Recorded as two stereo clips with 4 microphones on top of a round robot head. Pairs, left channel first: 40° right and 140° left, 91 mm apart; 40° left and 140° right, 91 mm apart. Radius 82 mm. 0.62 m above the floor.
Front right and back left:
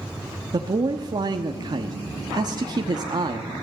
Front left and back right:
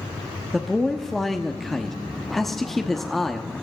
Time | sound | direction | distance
0.5 | a man speaking | 130° left | 1.1 m